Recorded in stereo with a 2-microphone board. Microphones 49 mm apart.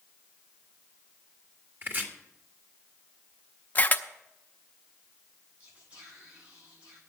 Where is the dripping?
No dripping in this recording.